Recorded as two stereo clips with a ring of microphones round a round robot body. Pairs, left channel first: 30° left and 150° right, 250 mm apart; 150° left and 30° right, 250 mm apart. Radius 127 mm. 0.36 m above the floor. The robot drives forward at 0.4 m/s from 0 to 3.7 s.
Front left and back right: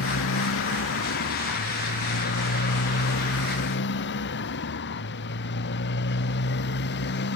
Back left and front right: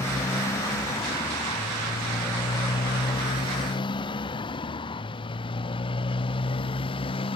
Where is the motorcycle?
70° left; by 7.4 s 80° left.